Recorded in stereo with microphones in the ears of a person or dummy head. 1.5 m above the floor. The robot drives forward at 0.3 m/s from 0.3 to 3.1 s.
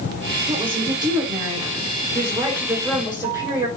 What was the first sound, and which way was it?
A woman speaking, 25° right (ahead or behind).